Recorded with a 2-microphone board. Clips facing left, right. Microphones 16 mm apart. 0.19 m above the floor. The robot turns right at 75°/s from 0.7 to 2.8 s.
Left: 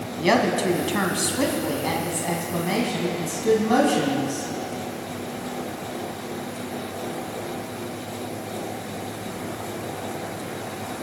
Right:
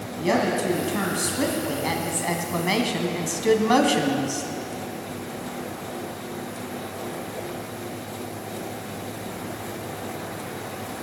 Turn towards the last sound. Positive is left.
turn(degrees=-30)  # may be behind; listen again after turning